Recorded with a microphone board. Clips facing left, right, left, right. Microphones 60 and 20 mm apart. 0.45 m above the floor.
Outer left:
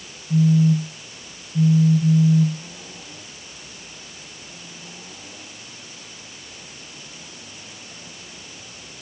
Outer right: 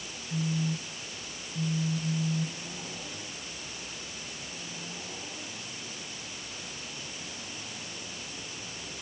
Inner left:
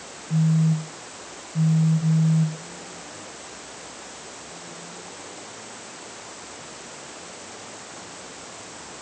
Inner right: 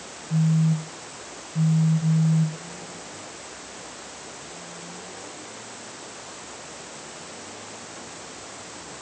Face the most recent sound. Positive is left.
turn(degrees=75)  # may be behind; listen again after turning